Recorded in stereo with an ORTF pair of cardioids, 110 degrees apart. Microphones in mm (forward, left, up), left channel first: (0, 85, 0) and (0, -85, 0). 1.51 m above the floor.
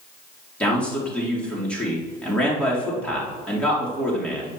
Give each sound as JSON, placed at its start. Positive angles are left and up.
{"t": 0.6, "sound": "a man speaking", "azimuth_deg": 5, "distance_m": 3.5}